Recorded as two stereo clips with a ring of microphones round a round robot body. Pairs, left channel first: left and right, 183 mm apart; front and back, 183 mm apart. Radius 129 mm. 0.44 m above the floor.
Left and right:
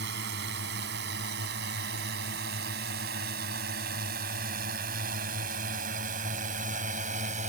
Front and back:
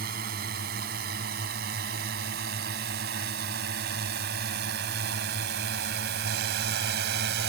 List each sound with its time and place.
0.0 s a drone: 130° right; by 7.5 s 145° right